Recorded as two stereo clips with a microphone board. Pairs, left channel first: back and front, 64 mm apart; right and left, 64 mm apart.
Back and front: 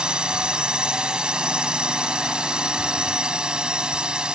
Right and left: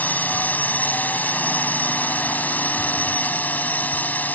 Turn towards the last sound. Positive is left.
turn(degrees=-60)